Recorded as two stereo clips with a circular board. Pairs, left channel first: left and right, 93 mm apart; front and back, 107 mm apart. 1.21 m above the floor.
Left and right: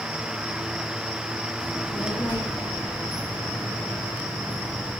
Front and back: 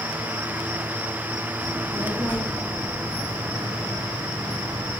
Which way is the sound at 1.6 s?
130° left.